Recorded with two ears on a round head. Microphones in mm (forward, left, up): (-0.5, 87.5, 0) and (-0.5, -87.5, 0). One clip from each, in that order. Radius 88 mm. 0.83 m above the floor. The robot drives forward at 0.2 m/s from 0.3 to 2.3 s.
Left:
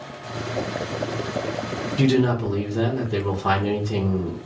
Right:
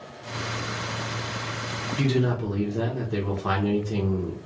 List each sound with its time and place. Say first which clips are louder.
2.0 s a man speaking: left 6 dB; 10° left (ahead or behind), 0.6 m